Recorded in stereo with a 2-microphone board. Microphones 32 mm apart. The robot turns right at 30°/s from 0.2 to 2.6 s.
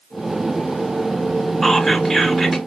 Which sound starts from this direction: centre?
Whispering, at 1.6 s.